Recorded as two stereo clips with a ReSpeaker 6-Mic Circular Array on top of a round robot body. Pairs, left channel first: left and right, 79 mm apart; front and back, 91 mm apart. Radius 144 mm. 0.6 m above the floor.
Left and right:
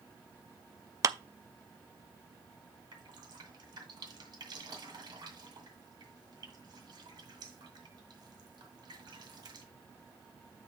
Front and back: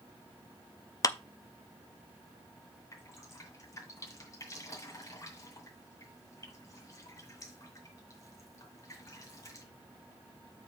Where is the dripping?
60° right, 2 m.